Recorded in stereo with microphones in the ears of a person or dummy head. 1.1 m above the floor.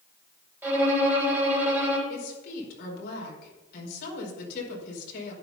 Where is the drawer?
No drawer in this recording.